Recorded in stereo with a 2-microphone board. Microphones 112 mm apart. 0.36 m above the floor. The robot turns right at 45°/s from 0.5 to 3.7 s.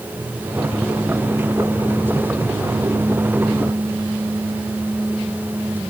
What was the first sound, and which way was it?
Only background noise.